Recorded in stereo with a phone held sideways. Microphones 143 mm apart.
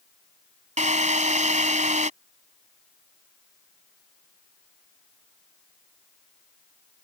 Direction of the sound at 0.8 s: 55° right (ahead or behind).